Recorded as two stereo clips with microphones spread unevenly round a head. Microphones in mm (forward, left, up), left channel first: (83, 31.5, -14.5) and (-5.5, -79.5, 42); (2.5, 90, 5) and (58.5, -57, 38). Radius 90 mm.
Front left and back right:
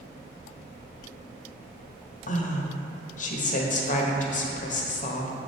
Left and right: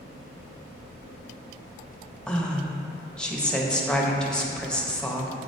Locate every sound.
2.3 s a woman speaking: 30° left, 1.1 m